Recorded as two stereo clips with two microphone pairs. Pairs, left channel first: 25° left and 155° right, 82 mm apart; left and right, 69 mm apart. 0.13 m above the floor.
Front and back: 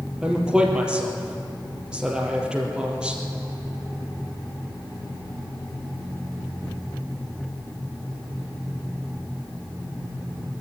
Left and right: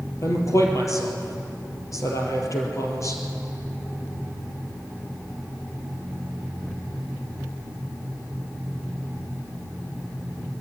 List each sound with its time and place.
0.2 s a man speaking: 125° left, 3.5 m